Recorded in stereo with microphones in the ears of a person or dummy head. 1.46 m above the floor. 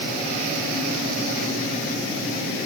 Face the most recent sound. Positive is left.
No sound to turn to.